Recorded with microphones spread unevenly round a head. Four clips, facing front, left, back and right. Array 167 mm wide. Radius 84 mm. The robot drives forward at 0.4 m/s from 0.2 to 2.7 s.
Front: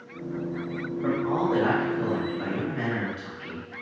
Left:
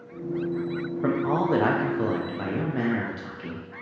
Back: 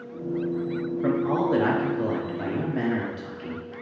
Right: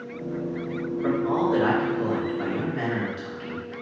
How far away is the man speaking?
About 0.9 m.